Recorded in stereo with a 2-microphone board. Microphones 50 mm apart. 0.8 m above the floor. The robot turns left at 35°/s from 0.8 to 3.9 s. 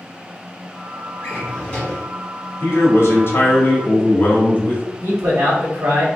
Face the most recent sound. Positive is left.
turn(degrees=-55)  # may be behind; listen again after turning